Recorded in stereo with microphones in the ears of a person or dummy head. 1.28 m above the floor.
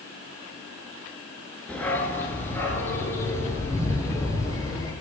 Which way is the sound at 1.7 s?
10° left (ahead or behind).